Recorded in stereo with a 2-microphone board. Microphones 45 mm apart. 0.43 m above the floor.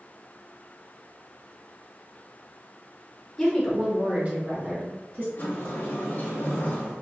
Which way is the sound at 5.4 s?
50° left (ahead or behind).